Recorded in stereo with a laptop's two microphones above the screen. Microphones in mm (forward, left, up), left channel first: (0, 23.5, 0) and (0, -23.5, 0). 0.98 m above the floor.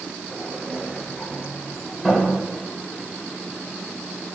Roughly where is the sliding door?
Centre.